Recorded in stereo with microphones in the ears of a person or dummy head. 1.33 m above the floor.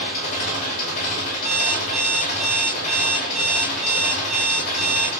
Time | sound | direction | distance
0.0 | an engine running | 40° left (ahead or behind) | 3 m
1.4 | an alarm clock | 5° right (ahead or behind) | 1.3 m